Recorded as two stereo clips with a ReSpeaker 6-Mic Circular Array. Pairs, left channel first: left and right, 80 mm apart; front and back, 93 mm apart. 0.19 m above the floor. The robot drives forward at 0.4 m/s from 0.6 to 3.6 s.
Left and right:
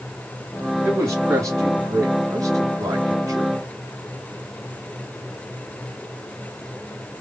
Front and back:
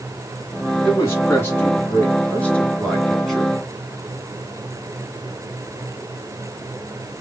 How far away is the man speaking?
About 2 m.